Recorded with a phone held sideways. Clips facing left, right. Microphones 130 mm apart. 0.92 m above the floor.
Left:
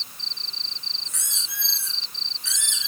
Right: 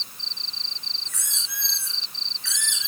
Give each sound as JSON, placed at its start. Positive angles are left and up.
{"t": 1.1, "sound": "a squeak", "side_deg": 25, "distance_m": 4.0}